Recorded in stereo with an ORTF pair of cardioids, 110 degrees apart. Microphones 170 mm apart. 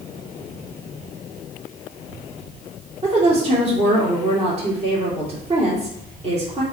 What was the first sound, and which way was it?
A woman speaking, 35° right.